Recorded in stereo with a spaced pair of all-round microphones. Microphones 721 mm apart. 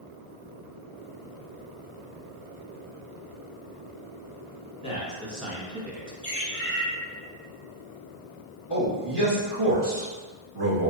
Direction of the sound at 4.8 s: 10° left (ahead or behind).